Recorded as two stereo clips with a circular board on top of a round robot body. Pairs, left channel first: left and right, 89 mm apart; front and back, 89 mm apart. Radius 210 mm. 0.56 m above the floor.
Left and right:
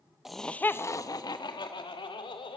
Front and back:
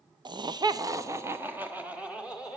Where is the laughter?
175° right, 1.0 m; by 2.6 s 100° left, 2.5 m.